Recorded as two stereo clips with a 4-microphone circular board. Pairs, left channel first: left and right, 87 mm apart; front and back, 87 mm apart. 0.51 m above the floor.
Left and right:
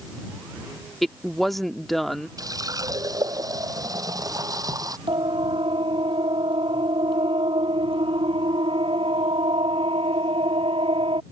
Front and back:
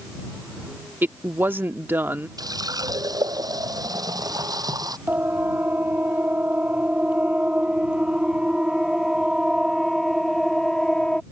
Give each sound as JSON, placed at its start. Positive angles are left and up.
{"t": 1.0, "sound": "a woman speaking", "azimuth_deg": 175}
{"t": 2.4, "sound": "a running tap", "azimuth_deg": -135}
{"t": 5.1, "sound": "a siren", "azimuth_deg": -110}